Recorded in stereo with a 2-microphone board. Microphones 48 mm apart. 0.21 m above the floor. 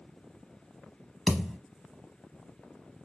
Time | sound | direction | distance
1.3 | a thud | 5° left (ahead or behind) | 0.7 m